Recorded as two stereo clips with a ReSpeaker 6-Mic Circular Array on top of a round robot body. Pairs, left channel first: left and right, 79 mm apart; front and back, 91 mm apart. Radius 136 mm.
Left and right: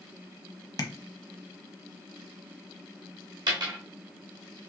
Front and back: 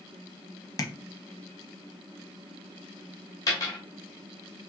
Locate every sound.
0.8 s tapping: 50° left, 1.1 m
3.5 s a dropped coin: 50° right, 1.9 m